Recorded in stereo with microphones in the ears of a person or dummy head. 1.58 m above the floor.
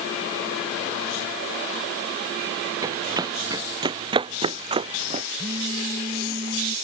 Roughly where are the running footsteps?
Centre.